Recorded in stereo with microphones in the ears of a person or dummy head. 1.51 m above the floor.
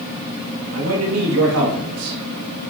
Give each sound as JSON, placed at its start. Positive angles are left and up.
{"t": 0.7, "sound": "a man speaking", "side_deg": -90, "distance_m": 2.5}